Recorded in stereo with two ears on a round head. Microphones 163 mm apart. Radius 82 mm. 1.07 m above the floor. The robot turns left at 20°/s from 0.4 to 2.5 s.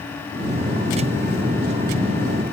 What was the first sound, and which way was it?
Only background noise.